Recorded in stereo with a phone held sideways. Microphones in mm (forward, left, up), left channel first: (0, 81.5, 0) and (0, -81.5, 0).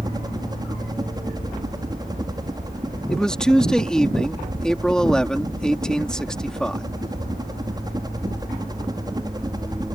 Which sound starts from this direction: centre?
A man speaking, at 3.1 s.